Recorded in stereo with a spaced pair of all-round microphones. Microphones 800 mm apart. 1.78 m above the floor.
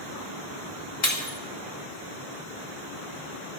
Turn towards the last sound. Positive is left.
turn(degrees=70)  # may be behind; listen again after turning